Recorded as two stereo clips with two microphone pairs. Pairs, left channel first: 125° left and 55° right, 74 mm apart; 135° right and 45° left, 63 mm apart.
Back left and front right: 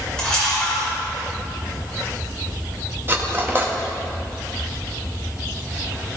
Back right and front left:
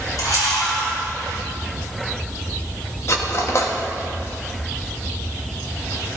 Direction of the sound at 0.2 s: 155° right.